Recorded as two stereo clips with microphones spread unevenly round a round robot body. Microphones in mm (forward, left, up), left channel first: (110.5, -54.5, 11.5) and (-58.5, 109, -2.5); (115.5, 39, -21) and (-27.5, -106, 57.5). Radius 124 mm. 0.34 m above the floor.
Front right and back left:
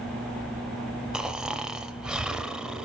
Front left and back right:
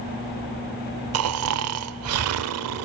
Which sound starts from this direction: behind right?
Snoring, at 1.1 s.